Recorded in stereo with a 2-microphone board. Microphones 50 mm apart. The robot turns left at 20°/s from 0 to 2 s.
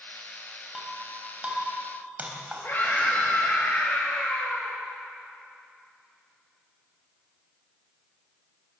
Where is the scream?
45° left (ahead or behind), 6.5 m.